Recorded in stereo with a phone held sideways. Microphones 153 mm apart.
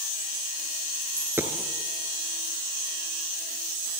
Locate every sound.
1.0 s a dropped coin: 15° right (ahead or behind), 2.5 m